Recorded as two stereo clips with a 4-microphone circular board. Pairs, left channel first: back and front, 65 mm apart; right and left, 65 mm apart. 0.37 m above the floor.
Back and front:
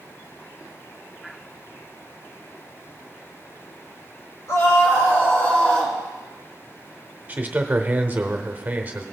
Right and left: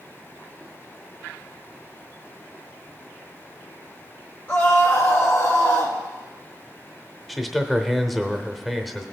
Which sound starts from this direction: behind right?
A scream, at 4.5 s.